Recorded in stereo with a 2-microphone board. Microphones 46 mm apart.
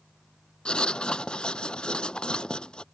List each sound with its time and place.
0.7 s writing: 20° left (ahead or behind)